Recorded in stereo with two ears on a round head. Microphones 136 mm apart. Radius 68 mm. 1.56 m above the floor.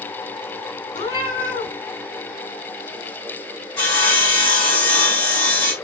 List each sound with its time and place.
0.9 s a cat meowing: 30° left (ahead or behind), 2.5 m
3.8 s sawing: 15° left (ahead or behind), 3 m